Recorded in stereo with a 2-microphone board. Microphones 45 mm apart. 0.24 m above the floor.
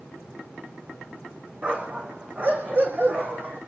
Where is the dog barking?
30° right (ahead or behind), 6.5 m; by 3.6 s 45° right (ahead or behind), 6.5 m.